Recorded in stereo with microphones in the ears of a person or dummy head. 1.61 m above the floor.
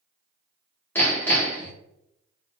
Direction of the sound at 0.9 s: 10° left (ahead or behind).